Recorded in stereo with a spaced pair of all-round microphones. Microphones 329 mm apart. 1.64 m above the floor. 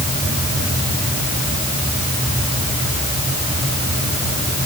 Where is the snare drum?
No snare drum in this recording.